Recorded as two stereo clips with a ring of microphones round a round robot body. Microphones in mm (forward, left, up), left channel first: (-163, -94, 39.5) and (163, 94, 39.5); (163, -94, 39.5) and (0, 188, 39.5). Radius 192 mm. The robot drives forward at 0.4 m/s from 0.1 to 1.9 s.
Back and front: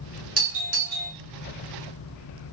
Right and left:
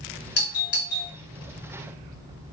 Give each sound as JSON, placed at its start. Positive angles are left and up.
{"t": 0.4, "sound": "a doorbell", "azimuth_deg": -30, "distance_m": 1.8}